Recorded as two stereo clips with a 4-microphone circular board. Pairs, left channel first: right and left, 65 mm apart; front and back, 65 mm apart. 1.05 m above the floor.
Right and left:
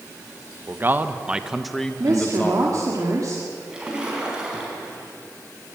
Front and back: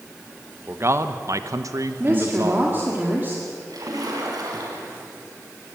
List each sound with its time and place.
0.7 s a man speaking: 135° left, 1.1 m; by 2.8 s 140° right, 1.3 m
2.0 s a woman speaking: 120° left, 2 m
3.7 s a splash: 165° left, 4.5 m